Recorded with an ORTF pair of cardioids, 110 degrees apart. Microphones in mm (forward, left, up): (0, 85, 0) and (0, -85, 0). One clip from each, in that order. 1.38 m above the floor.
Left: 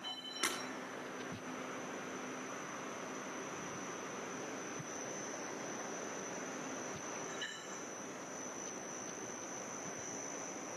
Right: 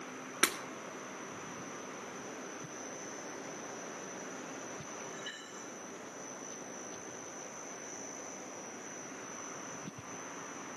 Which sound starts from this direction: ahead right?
Breaking glass, at 0.4 s.